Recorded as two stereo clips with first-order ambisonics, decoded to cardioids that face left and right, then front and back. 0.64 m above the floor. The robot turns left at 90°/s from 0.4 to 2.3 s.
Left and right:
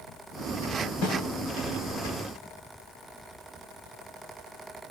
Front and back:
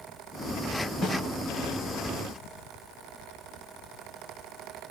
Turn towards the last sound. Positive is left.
turn(degrees=-50)